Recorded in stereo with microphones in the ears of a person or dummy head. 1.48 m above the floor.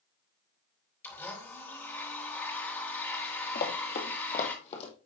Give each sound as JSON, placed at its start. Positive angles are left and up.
{"t": 1.0, "sound": "a blender", "side_deg": 10, "distance_m": 3.0}
{"t": 3.5, "sound": "running footsteps", "side_deg": 55, "distance_m": 2.5}